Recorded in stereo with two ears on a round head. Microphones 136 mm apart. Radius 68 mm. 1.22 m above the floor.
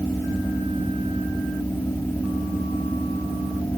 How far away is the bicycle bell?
I don't hear a bicycle bell.